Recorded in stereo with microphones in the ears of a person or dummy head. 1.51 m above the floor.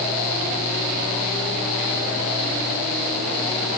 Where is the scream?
I don't hear a scream.